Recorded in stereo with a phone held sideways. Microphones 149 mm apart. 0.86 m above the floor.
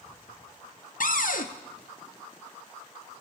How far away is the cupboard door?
About 0.6 m.